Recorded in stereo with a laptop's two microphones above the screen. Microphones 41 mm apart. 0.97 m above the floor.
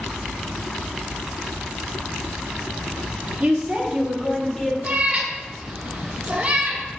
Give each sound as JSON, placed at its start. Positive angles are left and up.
{"t": 3.4, "sound": "a woman speaking", "side_deg": -35, "distance_m": 0.7}
{"t": 4.8, "sound": "a cat meowing", "side_deg": -35, "distance_m": 0.6}